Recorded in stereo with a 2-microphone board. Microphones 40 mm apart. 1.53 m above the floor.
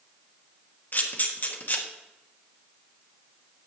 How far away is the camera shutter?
About 1.3 m.